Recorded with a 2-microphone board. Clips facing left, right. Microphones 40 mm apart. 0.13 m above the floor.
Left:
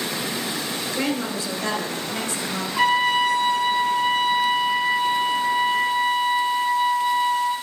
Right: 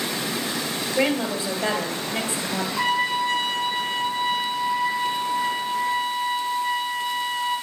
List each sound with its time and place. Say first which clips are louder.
1.0 s a woman speaking: right 4 dB; 15° right (ahead or behind), 2.5 m
2.8 s a trumpet: left 5 dB; 70° left (ahead or behind), 1.8 m